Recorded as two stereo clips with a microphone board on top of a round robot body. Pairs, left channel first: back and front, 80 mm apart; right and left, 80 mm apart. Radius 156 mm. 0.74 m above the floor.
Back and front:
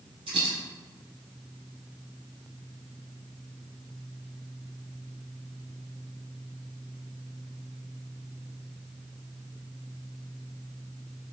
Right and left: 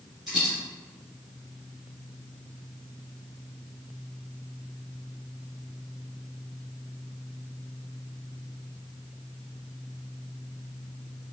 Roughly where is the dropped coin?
Ahead.